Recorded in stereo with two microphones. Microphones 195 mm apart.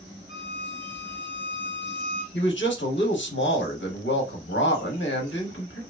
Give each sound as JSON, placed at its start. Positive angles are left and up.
{"t": 0.3, "sound": "a violin", "side_deg": 80, "distance_m": 1.0}
{"t": 2.3, "sound": "a man speaking", "side_deg": 75, "distance_m": 1.1}